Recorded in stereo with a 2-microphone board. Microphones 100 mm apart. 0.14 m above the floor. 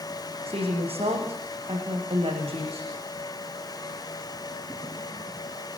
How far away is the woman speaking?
About 8.5 m.